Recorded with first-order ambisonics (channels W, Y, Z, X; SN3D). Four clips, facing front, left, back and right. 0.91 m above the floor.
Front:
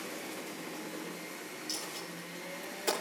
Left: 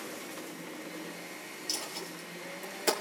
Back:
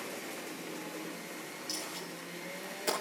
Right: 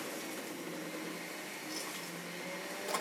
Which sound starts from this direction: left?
A dropped coin, at 1.7 s.